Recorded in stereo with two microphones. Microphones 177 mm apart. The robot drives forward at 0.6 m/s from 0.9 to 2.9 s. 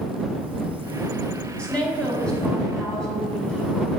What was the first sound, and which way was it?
A woman speaking, 5° left (ahead or behind).